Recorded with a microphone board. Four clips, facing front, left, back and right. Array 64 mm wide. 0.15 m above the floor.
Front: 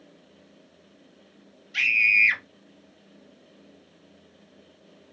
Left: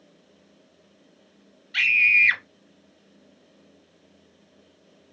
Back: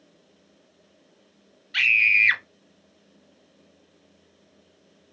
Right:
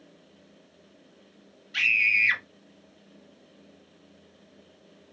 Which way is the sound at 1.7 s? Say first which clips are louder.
Left 4 dB, back 1 dB; 165° left.